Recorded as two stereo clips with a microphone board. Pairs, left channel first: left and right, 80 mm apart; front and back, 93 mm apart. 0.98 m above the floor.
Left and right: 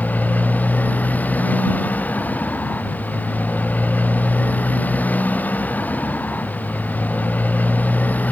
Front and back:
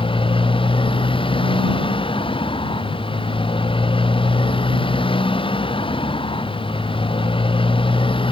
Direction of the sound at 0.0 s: 20° left.